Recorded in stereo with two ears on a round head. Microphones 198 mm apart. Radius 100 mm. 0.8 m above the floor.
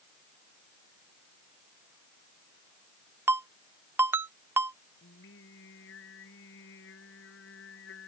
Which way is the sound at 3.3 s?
10° right (ahead or behind).